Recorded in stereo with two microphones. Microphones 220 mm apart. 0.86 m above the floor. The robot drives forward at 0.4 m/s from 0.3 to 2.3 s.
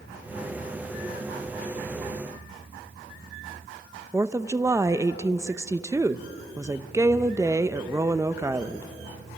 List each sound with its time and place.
4.1 s a woman speaking: 15° right (ahead or behind), 0.6 m